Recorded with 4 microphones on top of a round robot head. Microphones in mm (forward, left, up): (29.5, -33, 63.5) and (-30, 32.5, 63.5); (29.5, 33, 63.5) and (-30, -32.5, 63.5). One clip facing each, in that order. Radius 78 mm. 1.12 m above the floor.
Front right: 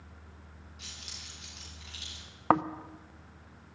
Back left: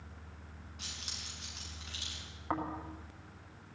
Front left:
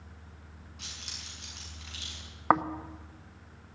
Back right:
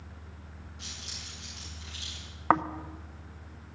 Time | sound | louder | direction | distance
0.8 | keys jangling | back left 2 dB, back right 1 dB | 80° left | 8 m
2.5 | snoring | front right 11 dB, even | 35° right | 0.7 m